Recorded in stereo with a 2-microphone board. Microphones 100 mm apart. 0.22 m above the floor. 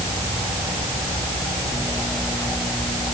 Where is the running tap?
I don't hear a running tap.